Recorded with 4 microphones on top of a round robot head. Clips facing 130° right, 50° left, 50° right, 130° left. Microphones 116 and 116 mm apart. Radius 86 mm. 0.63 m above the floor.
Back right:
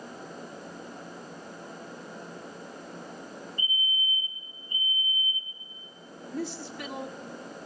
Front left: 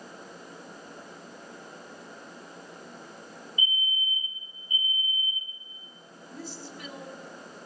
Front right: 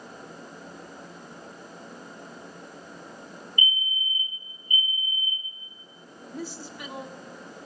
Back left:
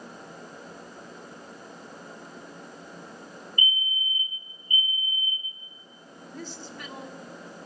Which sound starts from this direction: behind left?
A fire alarm, at 3.6 s.